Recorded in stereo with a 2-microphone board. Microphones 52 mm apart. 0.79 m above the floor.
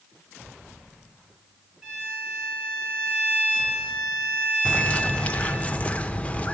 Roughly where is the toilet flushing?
No toilet flushing in this recording.